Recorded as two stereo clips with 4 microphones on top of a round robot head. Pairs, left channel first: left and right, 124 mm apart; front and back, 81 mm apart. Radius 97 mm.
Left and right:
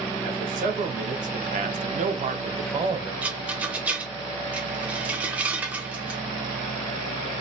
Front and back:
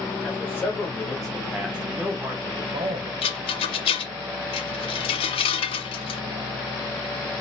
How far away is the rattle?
About 0.6 m.